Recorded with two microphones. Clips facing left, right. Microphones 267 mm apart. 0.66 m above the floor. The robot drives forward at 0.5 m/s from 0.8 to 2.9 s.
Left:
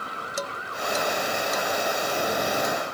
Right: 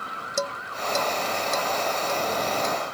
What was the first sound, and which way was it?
Dishes clattering, 50° right (ahead or behind).